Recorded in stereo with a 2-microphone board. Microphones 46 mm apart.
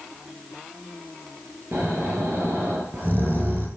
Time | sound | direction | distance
1.7 | snoring | 40° right (ahead or behind) | 7 m